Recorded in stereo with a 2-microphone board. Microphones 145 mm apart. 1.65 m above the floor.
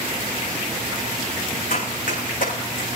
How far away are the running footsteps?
About 8 m.